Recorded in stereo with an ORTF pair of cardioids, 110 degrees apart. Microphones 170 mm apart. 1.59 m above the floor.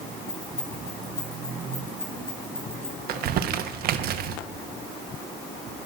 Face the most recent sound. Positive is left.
turn(degrees=-70)